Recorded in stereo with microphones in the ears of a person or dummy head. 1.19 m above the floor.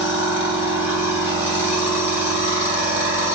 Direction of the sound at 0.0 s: 10° right (ahead or behind).